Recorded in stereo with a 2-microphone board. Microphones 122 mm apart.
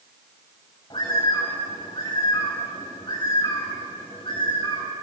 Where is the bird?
45° left (ahead or behind), 5.5 m.